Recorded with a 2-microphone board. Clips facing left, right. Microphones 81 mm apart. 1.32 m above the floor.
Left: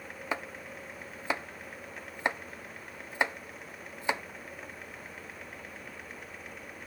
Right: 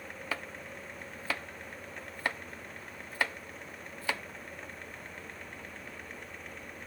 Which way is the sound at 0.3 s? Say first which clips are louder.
Left 4 dB; 20° left (ahead or behind).